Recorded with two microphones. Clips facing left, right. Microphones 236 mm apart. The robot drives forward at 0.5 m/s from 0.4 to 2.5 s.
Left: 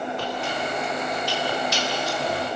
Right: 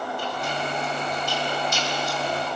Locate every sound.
0.2 s chewing: 80° left, 4.5 m